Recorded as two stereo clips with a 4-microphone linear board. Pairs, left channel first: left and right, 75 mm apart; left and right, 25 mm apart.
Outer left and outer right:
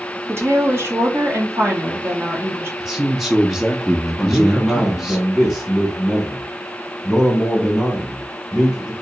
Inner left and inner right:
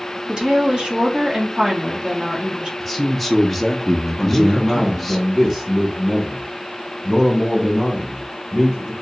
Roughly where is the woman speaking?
Right.